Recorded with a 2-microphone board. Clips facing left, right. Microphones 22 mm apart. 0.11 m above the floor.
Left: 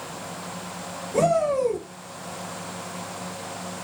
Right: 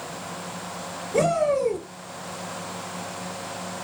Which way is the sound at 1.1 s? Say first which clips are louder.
Even; 15° right (ahead or behind).